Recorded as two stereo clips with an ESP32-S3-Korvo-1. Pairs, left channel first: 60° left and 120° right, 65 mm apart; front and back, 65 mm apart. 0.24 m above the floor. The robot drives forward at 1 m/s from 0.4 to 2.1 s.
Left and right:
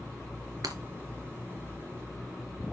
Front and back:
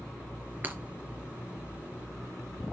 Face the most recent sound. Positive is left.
turn(degrees=-140)